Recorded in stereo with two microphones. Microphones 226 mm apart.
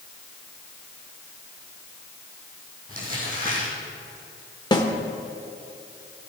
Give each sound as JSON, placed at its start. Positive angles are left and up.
{"t": 2.9, "sound": "crumpling", "side_deg": -40, "distance_m": 4.5}
{"t": 4.7, "sound": "a snare drum", "side_deg": 20, "distance_m": 1.2}